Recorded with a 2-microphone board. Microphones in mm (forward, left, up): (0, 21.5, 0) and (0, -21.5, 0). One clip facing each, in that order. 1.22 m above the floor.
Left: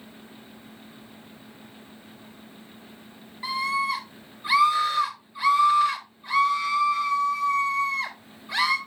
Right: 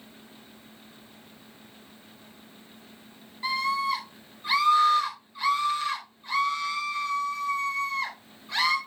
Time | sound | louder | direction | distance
3.4 | a scream | left 1 dB | 5° left (ahead or behind) | 4 m